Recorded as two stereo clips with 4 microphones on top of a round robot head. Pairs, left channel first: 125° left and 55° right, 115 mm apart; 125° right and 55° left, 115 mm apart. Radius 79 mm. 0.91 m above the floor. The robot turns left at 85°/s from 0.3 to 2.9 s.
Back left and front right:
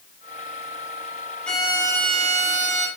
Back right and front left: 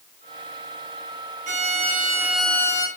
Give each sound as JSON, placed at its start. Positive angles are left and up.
{"t": 1.5, "sound": "a violin", "azimuth_deg": 45, "distance_m": 2.0}